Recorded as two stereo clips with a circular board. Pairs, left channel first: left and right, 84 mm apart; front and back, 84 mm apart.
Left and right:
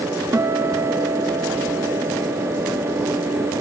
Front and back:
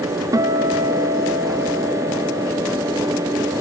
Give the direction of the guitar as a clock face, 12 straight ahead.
5 o'clock.